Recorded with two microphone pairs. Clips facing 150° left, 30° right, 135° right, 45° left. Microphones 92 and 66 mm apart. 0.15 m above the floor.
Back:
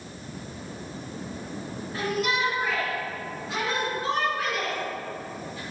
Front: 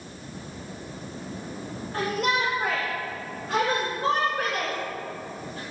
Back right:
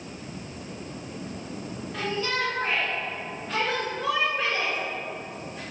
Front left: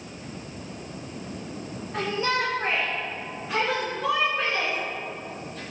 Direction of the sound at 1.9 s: 15° right.